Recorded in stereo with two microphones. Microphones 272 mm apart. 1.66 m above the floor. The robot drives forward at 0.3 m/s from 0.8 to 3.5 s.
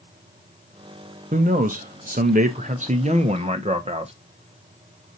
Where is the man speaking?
30° right (ahead or behind), 0.6 m; by 4.1 s 25° right (ahead or behind), 0.7 m.